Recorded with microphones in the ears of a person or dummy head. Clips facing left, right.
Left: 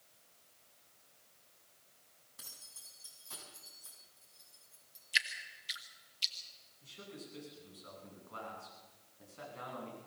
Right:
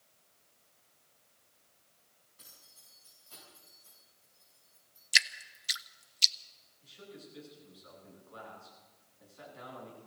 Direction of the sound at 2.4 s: 75° left (ahead or behind).